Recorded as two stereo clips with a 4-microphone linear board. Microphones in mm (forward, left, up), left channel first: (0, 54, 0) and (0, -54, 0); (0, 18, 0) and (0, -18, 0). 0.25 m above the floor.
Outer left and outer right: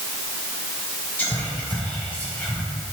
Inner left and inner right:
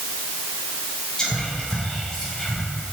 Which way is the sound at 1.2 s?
15° left (ahead or behind).